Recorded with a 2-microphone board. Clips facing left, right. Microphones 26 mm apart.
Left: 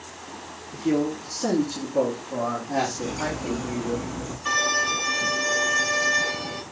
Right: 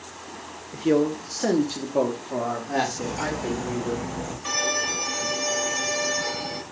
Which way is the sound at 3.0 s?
75° right (ahead or behind).